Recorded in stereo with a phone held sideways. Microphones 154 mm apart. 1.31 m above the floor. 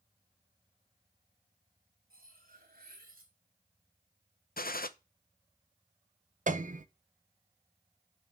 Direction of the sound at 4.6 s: 70° left (ahead or behind).